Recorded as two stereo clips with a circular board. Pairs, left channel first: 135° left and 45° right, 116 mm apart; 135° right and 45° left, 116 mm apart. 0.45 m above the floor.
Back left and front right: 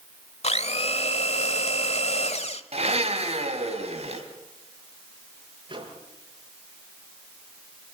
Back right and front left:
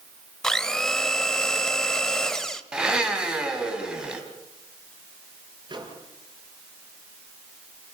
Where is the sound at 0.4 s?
140° left, 1.2 m.